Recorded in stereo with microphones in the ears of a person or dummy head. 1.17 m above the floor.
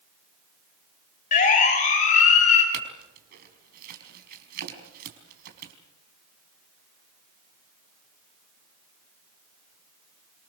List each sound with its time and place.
1.3 s a siren: 40° left (ahead or behind), 6.5 m; by 2.6 s 35° left (ahead or behind), 7.5 m
2.7 s a clink: 55° right (ahead or behind), 5 m